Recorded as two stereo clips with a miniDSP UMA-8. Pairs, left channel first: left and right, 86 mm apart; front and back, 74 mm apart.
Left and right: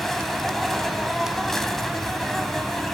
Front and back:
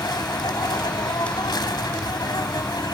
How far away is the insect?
About 1.6 m.